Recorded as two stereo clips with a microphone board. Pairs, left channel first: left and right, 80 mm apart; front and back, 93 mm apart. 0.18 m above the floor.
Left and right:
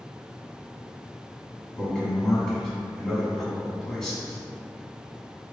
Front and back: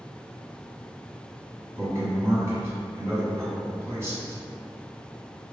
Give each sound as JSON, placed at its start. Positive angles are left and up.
{"t": 1.8, "sound": "a man speaking", "azimuth_deg": 170, "distance_m": 1.1}